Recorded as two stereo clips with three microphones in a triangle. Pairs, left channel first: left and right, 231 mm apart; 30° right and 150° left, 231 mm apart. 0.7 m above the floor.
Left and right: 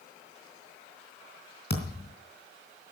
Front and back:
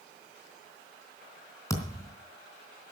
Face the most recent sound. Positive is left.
turn(degrees=45)